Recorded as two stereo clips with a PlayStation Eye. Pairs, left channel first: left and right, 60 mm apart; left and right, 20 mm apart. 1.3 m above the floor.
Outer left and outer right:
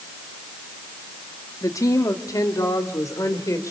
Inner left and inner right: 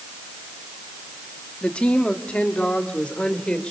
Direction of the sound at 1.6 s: 75° left (ahead or behind).